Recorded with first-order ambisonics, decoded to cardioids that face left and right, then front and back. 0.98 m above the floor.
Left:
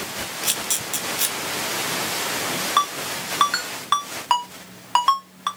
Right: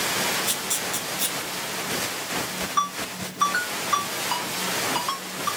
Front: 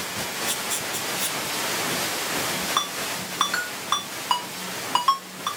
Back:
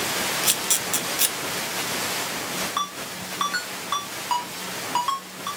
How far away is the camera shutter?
About 0.9 m.